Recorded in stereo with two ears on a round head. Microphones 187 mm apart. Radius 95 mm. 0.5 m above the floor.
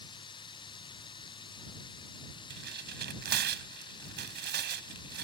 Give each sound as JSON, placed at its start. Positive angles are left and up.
{"t": 0.0, "sound": "running water", "side_deg": 20}
{"t": 2.5, "sound": "tearing paper", "side_deg": -55}